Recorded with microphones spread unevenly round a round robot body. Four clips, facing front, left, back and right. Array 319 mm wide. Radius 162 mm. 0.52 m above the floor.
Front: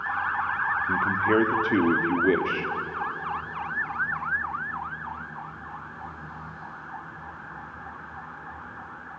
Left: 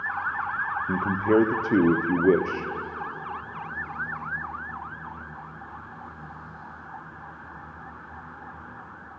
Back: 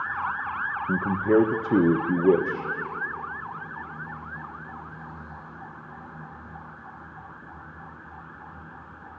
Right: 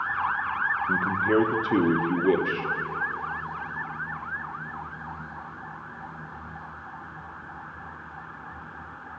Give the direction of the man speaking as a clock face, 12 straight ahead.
8 o'clock.